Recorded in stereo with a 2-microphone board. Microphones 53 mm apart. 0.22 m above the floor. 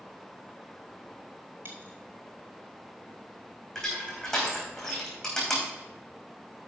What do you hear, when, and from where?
1.6 s a dropped coin: 40° right (ahead or behind), 1.3 m
3.8 s crushing: 10° left (ahead or behind), 4 m